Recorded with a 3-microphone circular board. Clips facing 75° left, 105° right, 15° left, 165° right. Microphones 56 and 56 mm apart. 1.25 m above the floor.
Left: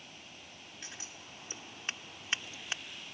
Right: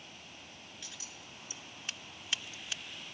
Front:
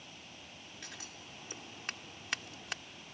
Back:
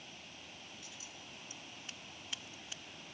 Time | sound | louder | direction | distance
0.8 | scissors | left 4 dB, front 3 dB | 25° left | ?